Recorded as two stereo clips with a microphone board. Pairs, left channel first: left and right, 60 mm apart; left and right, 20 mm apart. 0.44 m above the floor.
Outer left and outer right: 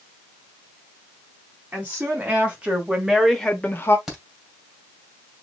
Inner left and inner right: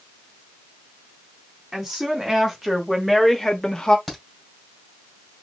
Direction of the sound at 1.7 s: 30° right (ahead or behind).